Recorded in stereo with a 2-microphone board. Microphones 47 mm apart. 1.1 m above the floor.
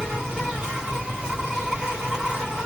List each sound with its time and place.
0.0 s an insect: 20° right (ahead or behind), 2 m